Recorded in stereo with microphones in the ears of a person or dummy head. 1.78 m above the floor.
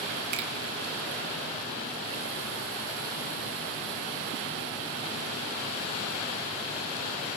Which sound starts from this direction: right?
A finger snap, at 0.3 s.